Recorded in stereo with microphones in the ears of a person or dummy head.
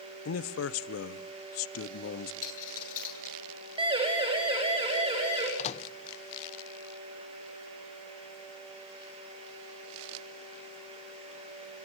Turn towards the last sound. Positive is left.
turn(degrees=40)  # may be behind; listen again after turning